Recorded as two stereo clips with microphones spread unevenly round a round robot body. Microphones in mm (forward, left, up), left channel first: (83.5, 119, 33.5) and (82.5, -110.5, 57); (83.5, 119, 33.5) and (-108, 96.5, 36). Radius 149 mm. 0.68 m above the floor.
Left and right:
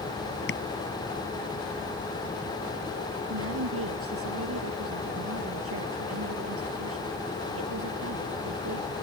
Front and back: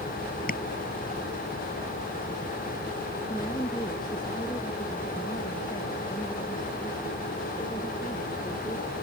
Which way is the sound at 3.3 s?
70° right.